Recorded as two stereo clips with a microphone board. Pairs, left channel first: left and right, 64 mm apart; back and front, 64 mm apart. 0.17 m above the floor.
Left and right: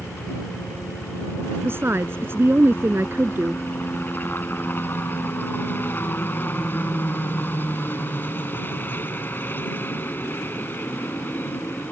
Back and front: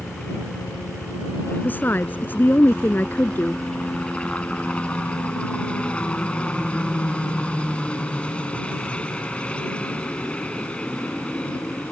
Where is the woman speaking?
130° right.